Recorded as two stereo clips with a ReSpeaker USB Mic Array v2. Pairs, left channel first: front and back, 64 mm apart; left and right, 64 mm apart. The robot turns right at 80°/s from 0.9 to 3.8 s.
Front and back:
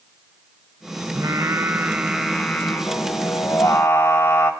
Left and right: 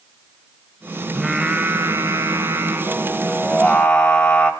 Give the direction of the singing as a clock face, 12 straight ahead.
6 o'clock.